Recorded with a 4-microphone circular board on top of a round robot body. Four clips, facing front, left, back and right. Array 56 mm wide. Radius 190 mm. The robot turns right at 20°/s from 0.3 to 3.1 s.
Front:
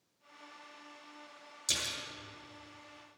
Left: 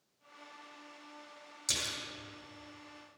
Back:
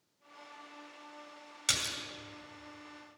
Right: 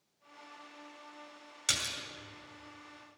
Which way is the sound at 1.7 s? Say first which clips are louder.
Right 3 dB, back 3 dB; 145° right.